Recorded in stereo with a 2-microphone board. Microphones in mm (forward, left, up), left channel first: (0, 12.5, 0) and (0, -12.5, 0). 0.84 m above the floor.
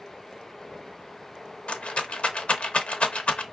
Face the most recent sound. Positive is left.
turn(degrees=55)  # may be behind; listen again after turning